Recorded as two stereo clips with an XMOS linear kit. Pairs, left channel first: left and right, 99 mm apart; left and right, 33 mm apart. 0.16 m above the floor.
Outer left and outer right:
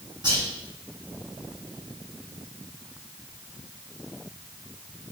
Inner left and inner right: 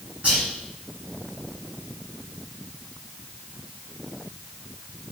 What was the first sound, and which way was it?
Whispering, 45° right (ahead or behind).